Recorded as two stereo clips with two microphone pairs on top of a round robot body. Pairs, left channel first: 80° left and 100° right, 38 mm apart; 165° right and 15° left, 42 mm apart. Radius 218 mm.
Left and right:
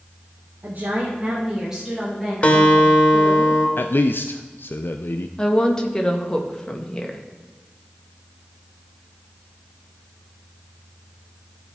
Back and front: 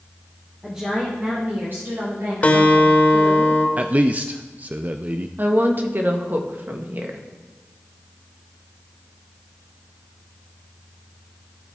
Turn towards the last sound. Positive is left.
turn(degrees=15)